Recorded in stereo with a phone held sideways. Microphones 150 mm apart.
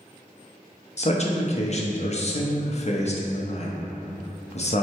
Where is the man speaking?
50° left (ahead or behind), 0.6 m.